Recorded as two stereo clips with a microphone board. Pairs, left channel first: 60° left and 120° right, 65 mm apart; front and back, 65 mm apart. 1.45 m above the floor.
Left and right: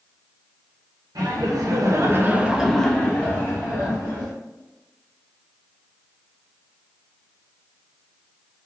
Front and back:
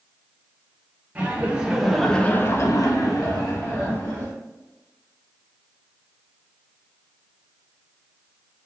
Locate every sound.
1.1 s laughter: 115° right, 0.9 m; by 4.3 s 15° left, 1.3 m